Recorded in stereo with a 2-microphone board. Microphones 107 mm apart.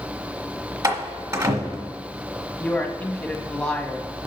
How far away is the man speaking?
About 1.6 m.